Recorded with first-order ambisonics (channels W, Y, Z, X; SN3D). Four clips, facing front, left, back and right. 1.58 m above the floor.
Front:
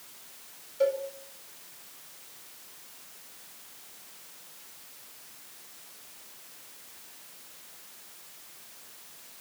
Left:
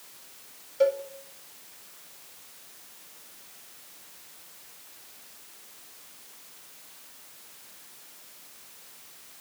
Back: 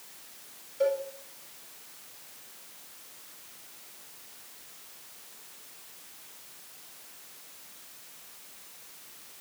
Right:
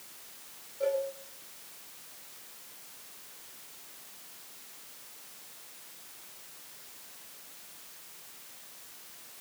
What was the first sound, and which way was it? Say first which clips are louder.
A cowbell: left 6 dB, front 1 dB; 85° left.